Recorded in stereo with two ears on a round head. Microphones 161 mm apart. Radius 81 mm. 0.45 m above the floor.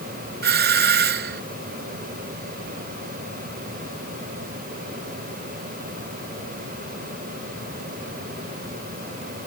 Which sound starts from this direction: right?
A doorbell, at 0.4 s.